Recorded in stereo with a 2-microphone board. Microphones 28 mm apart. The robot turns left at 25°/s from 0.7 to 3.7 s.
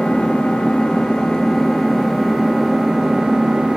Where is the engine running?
40° left, 0.7 m; by 3.8 s 35° right, 0.7 m.